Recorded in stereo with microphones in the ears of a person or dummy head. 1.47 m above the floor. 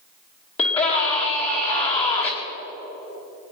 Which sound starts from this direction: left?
A scream, at 0.6 s.